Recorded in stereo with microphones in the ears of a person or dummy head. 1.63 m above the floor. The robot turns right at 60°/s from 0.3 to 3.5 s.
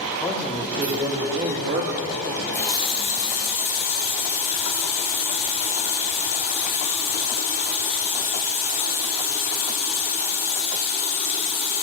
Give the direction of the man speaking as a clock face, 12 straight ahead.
6 o'clock.